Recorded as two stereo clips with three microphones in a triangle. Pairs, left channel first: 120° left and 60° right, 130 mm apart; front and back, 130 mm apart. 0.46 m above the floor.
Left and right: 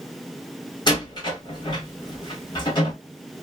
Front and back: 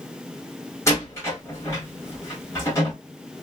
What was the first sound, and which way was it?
A door slam, 65° left.